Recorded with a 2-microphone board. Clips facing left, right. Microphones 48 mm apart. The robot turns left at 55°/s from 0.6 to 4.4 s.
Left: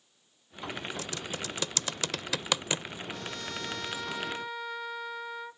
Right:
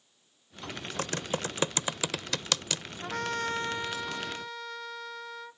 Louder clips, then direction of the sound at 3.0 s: Right 7 dB; 115° right.